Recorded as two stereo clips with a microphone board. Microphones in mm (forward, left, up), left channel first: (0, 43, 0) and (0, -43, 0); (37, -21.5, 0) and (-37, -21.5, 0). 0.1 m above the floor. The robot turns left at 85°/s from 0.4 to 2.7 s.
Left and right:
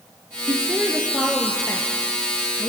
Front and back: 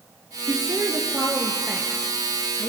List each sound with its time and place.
0.5 s a woman speaking: 125° right, 2.5 m; by 2.7 s 45° left, 2.5 m